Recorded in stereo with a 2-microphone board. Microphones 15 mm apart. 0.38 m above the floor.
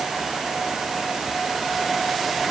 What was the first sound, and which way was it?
Only background noise.